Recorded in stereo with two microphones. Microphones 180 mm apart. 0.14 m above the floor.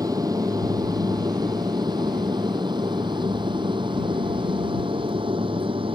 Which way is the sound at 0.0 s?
20° right (ahead or behind).